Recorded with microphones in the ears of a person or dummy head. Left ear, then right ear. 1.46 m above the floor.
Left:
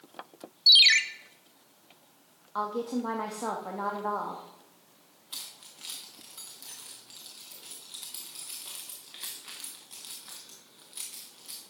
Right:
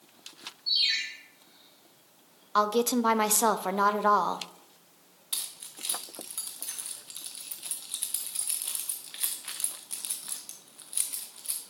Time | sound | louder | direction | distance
0.7 | a ringtone | left 9 dB | 50° left (ahead or behind) | 0.5 m
2.5 | a woman speaking | right 7 dB | 75° right (ahead or behind) | 0.6 m
5.3 | keys jangling | right 4 dB | 5° right (ahead or behind) | 0.5 m